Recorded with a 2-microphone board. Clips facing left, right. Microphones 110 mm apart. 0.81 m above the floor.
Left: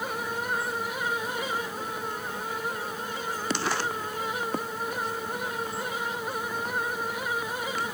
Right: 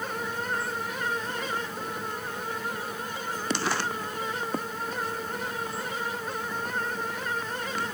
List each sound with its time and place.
Only background noise.